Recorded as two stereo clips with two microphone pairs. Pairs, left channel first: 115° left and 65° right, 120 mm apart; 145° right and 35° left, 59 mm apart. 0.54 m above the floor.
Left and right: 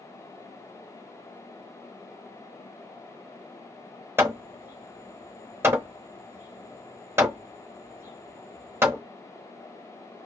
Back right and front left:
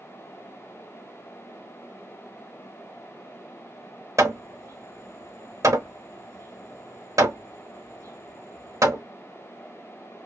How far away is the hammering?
About 0.9 m.